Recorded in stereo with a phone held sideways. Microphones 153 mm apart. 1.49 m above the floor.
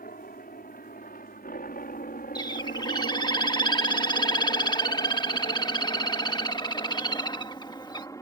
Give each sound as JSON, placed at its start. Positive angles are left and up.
{"t": 0.0, "sound": "a helicopter", "side_deg": 70}
{"t": 2.4, "sound": "a bird", "side_deg": 30}